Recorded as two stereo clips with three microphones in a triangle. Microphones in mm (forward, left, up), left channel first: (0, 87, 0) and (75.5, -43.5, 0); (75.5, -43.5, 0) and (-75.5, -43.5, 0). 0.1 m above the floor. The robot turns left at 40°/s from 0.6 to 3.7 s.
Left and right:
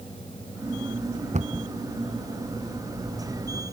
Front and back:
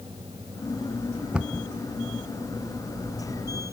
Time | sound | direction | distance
1.3 | a cupboard door | 95° right | ?